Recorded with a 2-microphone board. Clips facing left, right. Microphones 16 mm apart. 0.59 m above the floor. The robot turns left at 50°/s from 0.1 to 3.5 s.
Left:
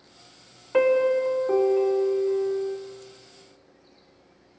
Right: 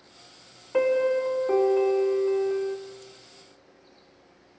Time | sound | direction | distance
0.7 | a piano | 30° left | 0.9 m